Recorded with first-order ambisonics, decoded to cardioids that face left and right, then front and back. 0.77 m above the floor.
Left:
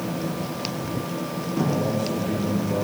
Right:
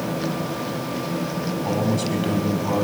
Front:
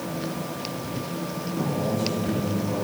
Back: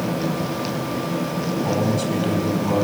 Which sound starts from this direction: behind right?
A man speaking, at 1.6 s.